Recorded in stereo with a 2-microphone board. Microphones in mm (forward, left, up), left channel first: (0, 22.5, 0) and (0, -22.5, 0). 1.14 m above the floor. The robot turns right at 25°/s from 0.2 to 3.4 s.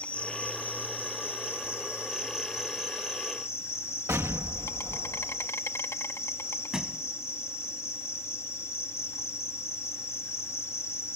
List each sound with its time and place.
0.0 s an insect: 25° left; by 11.2 s 105° left
4.1 s an explosion: 70° right (ahead or behind)
6.7 s a thud: 10° right (ahead or behind)